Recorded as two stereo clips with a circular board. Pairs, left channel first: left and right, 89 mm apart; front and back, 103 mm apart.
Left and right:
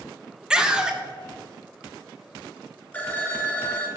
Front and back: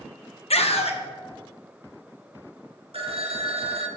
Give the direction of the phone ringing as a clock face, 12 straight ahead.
7 o'clock.